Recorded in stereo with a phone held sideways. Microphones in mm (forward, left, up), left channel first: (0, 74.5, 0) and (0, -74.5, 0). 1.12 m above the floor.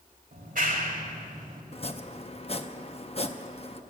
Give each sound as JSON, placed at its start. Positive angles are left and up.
{"t": 0.3, "sound": "a clap", "side_deg": -70, "distance_m": 1.8}
{"t": 1.7, "sound": "chopping", "side_deg": 40, "distance_m": 0.6}